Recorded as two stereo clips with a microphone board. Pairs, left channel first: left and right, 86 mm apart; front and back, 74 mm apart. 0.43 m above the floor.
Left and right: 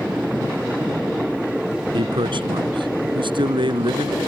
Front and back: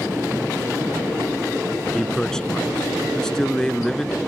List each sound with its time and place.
1.9 s a man speaking: 85° right